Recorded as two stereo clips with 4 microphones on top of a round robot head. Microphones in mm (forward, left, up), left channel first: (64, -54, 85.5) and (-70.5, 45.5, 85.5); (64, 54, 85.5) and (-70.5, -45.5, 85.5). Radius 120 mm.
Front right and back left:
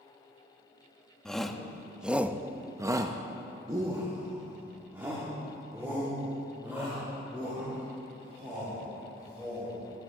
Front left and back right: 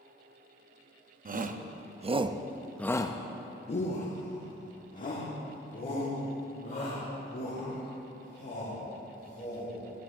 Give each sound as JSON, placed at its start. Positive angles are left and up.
{"t": 1.2, "sound": "a shout", "azimuth_deg": -125, "distance_m": 0.9}